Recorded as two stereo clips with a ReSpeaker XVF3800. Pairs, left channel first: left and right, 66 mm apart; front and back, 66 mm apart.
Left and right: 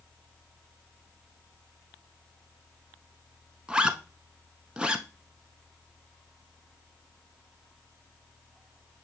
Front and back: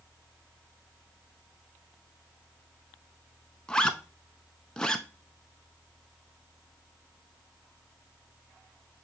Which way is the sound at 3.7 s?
50° right.